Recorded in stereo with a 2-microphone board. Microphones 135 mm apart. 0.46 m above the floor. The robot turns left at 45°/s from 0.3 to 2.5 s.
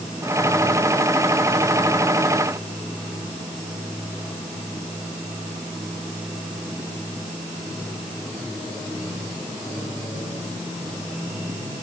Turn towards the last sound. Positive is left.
No sound to turn to.